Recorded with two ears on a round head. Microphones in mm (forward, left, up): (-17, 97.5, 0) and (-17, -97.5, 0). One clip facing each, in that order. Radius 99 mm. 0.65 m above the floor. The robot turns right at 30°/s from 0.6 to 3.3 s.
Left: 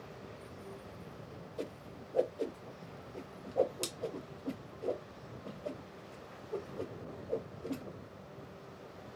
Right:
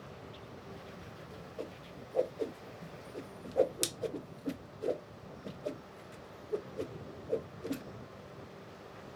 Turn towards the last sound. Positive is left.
turn(degrees=-20)  # may be behind; listen again after turning